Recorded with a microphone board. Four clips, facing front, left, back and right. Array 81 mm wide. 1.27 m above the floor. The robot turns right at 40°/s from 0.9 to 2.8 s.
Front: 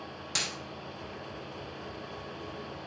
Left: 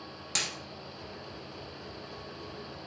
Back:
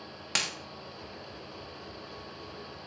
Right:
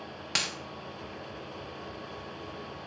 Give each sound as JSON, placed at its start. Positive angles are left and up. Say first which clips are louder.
{"t": 0.3, "sound": "a dropped coin", "louder": "right 3 dB, back 3 dB", "azimuth_deg": -145, "distance_m": 0.9}